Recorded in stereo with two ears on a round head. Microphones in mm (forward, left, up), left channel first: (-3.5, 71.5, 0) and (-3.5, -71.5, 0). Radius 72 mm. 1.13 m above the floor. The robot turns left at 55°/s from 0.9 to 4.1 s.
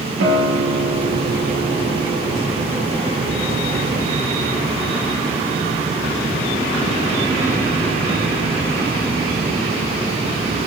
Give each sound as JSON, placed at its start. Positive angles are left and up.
{"t": 0.2, "sound": "a guitar", "azimuth_deg": -105, "distance_m": 1.5}